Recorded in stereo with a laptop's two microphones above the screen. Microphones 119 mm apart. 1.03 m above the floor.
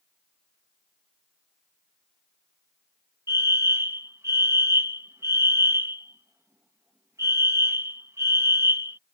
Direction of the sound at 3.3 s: 25° right (ahead or behind).